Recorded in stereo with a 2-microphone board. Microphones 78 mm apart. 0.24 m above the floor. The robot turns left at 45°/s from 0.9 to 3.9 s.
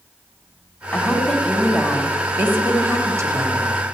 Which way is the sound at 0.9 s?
25° left.